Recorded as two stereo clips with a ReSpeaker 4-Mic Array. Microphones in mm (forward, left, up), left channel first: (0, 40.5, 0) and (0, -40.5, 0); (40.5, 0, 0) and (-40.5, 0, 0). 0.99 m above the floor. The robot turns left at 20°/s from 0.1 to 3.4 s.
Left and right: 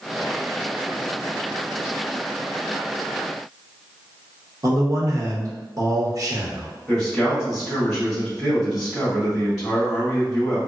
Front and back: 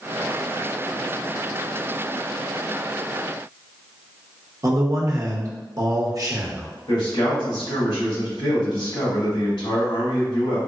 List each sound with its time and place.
4.6 s a man speaking: 135° right, 0.8 m
6.9 s a man speaking: straight ahead, 1.6 m